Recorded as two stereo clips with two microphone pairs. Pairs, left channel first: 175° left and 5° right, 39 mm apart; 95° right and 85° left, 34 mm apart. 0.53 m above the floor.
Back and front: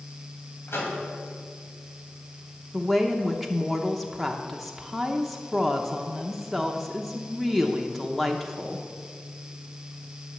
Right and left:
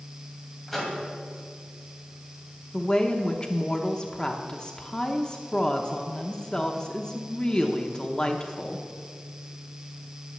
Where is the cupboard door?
No cupboard door in this recording.